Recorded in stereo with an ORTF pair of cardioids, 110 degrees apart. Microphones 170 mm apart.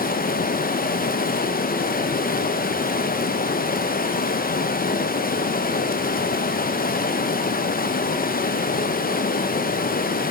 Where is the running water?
60° left, 0.7 m.